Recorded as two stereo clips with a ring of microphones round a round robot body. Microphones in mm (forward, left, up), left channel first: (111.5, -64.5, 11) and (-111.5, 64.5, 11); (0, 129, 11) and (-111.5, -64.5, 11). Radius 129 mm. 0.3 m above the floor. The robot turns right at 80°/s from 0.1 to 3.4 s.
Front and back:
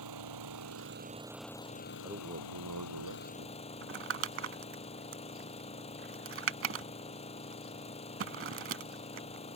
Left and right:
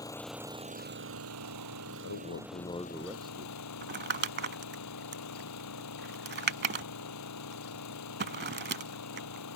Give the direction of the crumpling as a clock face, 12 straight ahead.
6 o'clock.